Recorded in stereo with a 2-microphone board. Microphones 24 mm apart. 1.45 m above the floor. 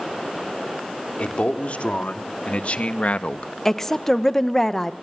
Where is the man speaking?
70° left (ahead or behind), 3.5 m; by 3.5 s 65° left (ahead or behind), 1.1 m.